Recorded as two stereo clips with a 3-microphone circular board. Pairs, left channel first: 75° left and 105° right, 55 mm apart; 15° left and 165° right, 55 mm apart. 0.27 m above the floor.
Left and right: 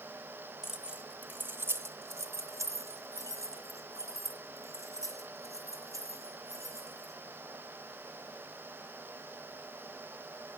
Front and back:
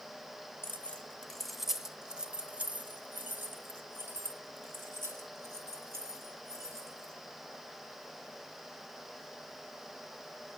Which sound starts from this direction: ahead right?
Keys jangling, at 0.6 s.